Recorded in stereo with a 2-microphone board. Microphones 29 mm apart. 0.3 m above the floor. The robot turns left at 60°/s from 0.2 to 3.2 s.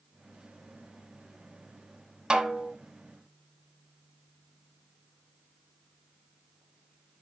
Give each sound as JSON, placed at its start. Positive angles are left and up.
{"t": 2.3, "sound": "a snare drum", "side_deg": -20, "distance_m": 1.2}